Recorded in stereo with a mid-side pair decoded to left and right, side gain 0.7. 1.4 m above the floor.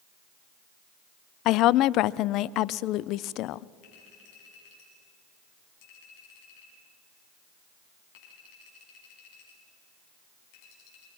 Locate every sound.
1.4 s a woman speaking: 55° left, 0.5 m
3.8 s a clink: 70° left, 8.5 m